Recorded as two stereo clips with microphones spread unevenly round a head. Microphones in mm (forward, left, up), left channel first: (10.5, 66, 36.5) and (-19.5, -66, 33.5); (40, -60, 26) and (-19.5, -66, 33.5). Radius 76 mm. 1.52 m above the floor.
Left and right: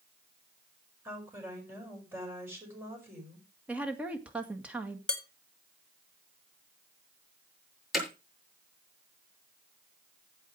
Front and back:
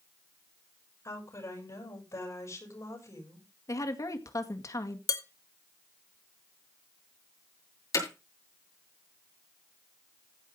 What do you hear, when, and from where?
1.1 s a woman speaking: 25° right, 7 m
3.7 s a woman speaking: 20° right, 1.9 m
5.1 s dishes clattering: 5° right, 1.8 m
7.9 s hammering: 15° right, 7.5 m